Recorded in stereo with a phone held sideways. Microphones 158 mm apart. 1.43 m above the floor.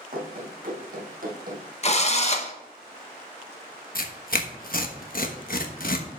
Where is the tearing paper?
65° left (ahead or behind), 1.2 m.